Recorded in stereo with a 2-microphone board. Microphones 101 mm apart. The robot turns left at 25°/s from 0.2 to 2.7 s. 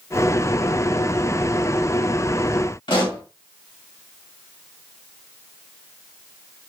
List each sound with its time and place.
2.9 s a pop: 55° left (ahead or behind), 1.3 m